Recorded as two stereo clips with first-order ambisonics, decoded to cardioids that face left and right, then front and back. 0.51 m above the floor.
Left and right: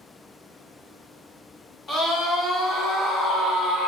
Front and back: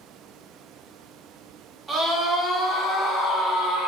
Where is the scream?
100° left, 1.3 m; by 3.9 s 45° left, 2.5 m.